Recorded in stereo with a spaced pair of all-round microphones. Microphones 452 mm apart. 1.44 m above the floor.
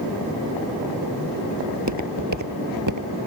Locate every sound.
1.7 s footsteps: 40° right (ahead or behind); by 3.1 s 45° right (ahead or behind)